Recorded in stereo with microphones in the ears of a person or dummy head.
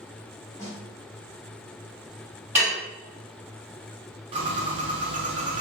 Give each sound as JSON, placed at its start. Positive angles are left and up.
{"t": 0.6, "sound": "a snare drum", "side_deg": 20, "distance_m": 1.3}
{"t": 2.5, "sound": "dishes clattering", "side_deg": -5, "distance_m": 1.7}
{"t": 4.3, "sound": "a bird", "side_deg": -30, "distance_m": 0.7}